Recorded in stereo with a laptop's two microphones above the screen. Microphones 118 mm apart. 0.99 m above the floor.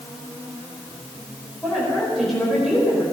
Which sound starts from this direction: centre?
A woman speaking, at 1.6 s.